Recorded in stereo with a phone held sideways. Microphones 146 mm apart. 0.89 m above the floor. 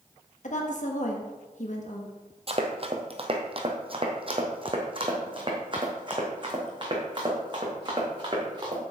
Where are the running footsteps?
40° right (ahead or behind), 1.3 m; by 8.8 s 30° right (ahead or behind), 4 m.